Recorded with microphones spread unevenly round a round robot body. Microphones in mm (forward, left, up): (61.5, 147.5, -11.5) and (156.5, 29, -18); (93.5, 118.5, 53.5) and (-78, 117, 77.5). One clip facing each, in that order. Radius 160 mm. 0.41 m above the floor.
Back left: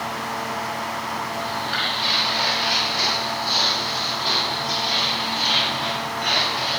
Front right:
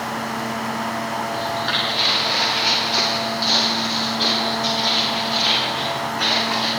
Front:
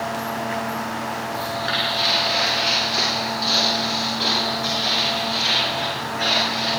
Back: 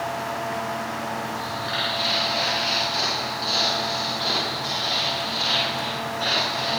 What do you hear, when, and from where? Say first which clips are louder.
1.3 s footsteps: front right 3 dB, front 4 dB; 50° right, 10 m